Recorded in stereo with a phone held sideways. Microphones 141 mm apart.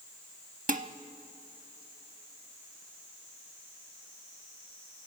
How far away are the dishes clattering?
About 0.8 m.